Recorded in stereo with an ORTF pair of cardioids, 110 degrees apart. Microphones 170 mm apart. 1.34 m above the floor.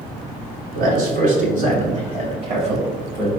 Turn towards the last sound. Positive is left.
turn(degrees=-30)